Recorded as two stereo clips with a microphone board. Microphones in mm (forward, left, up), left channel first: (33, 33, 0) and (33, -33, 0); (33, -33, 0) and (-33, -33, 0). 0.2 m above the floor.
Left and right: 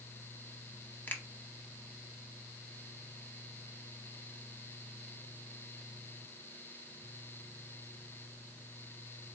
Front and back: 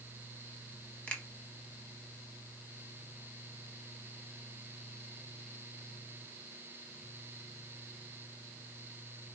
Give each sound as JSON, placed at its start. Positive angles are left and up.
{"t": 1.1, "sound": "a finger snap", "azimuth_deg": 55, "distance_m": 0.9}